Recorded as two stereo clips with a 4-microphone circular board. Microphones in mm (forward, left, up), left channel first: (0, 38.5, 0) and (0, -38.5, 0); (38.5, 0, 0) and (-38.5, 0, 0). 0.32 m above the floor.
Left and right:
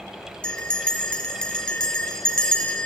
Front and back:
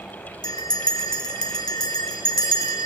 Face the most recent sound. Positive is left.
turn(degrees=15)